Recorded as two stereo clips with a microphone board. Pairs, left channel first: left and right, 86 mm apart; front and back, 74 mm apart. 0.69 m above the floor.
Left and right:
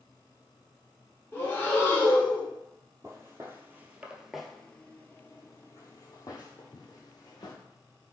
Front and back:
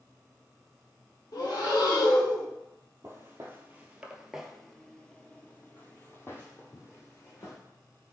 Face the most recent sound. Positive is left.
turn(degrees=50)